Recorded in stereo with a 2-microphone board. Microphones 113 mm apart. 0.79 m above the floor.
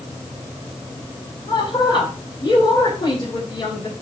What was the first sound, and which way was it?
A woman speaking, 35° left (ahead or behind).